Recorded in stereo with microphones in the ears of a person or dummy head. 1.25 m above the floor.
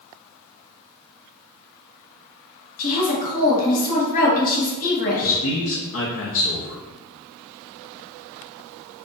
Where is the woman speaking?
45° left (ahead or behind), 1.4 m.